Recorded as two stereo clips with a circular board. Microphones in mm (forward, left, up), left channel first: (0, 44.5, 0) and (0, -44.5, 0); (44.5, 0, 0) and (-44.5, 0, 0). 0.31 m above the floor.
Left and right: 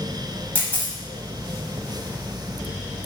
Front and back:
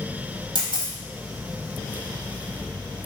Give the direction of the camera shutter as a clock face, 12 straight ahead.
7 o'clock.